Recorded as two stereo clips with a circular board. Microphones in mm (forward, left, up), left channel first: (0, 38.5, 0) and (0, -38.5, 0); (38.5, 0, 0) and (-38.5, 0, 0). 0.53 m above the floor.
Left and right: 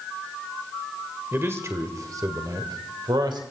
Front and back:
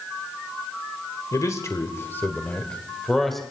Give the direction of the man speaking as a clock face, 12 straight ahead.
1 o'clock.